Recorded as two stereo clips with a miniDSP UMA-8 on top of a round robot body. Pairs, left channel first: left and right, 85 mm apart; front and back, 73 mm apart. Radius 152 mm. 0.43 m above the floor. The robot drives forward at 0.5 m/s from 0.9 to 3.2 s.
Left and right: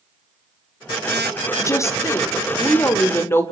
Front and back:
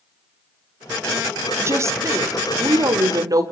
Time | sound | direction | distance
1.6 | a woman speaking | 135° left | 2 m